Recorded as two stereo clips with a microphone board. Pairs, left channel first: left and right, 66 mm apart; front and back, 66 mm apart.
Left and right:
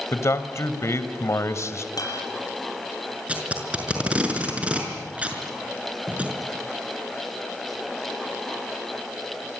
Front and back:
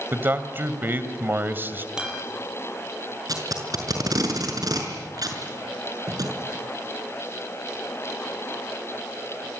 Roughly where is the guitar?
Left.